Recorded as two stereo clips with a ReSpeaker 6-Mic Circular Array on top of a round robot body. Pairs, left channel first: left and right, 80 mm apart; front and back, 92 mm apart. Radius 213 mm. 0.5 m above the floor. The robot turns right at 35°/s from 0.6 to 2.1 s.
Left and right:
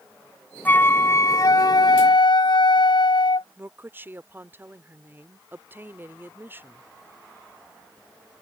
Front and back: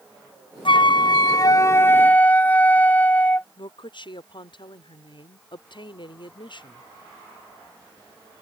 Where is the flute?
20° left; by 3.5 s 70° left.